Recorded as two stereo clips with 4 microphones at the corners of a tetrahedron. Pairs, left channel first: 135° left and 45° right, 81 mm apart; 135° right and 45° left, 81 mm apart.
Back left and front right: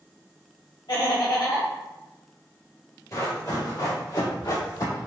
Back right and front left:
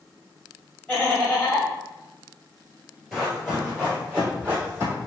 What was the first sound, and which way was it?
Laughter, 130° left.